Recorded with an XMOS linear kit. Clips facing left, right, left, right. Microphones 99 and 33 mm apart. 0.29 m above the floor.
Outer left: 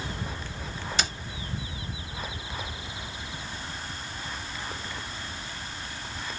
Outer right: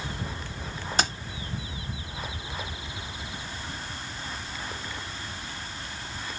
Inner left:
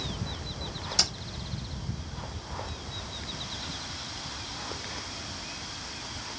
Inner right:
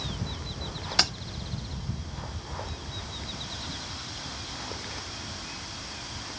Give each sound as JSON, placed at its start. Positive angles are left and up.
{"t": 1.0, "sound": "keys jangling", "side_deg": -40, "distance_m": 0.7}